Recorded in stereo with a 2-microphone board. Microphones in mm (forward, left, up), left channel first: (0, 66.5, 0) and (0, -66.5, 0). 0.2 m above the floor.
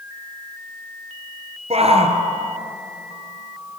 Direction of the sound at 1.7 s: 50° right (ahead or behind).